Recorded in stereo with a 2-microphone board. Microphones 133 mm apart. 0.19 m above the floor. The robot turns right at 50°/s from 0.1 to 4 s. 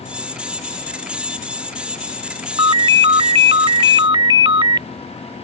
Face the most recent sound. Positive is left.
turn(degrees=-55)